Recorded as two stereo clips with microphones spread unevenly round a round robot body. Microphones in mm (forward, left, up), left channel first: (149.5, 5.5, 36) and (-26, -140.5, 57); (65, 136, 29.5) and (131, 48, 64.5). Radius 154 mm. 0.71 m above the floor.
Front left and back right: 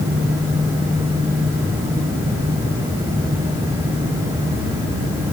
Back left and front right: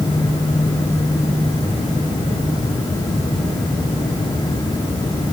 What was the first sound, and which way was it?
Only background noise.